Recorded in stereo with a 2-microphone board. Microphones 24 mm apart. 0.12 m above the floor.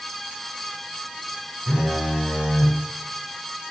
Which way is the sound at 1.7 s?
50° right (ahead or behind).